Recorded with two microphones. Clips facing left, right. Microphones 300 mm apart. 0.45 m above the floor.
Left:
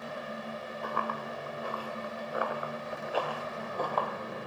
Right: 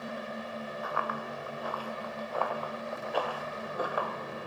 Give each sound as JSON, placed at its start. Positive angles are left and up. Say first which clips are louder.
{"t": 0.8, "sound": "running footsteps", "louder": "left 3 dB", "side_deg": 45, "distance_m": 3.0}